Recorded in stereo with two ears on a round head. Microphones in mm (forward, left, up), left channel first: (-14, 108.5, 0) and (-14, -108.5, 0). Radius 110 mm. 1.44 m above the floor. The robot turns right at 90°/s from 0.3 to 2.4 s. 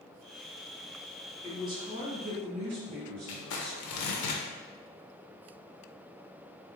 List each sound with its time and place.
1.4 s a woman speaking: 160° left, 1.5 m; by 4.3 s 115° right, 1.5 m
3.3 s crumpling: 70° left (ahead or behind), 0.6 m